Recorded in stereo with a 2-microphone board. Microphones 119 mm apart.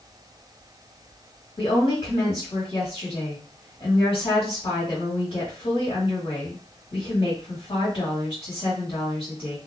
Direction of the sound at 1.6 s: 55° left (ahead or behind).